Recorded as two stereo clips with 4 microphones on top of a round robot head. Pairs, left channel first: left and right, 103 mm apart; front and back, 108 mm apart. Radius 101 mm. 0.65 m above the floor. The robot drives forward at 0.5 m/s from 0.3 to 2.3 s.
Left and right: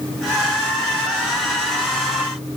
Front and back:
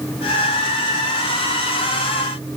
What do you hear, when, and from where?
Only background noise.